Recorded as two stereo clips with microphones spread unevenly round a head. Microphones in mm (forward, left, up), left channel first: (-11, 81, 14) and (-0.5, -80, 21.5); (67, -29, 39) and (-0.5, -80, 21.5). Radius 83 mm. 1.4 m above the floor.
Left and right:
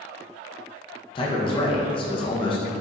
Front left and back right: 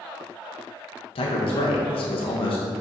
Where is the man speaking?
35° left, 0.7 m.